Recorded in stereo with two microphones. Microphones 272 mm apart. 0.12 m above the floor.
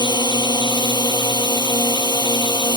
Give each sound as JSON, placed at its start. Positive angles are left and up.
{"t": 0.0, "sound": "a drone", "side_deg": 15}